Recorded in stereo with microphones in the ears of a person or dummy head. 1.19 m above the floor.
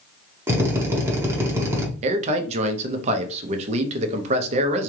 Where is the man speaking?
35° right (ahead or behind), 0.7 m.